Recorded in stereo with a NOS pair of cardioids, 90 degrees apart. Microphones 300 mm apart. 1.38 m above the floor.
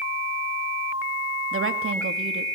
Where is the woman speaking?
45° right, 3 m.